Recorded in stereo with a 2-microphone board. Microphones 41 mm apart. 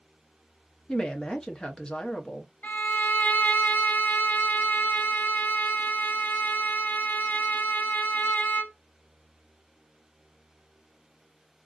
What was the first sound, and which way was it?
A woman speaking, 20° left (ahead or behind).